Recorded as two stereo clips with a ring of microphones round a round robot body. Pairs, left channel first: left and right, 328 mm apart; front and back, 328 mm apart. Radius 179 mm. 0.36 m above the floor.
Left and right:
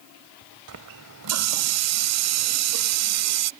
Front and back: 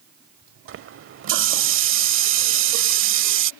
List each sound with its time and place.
0.7 s a running tap: 130° right